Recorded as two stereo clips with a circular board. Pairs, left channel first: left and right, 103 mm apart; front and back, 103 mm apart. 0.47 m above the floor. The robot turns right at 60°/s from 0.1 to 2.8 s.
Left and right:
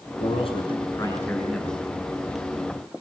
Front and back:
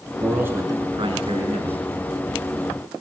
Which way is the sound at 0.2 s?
95° left.